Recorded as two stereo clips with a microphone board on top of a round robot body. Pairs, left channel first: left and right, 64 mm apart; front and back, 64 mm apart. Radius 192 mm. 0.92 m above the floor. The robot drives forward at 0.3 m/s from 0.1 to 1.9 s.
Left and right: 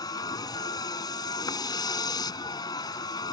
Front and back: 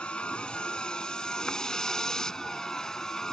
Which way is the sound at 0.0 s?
75° left.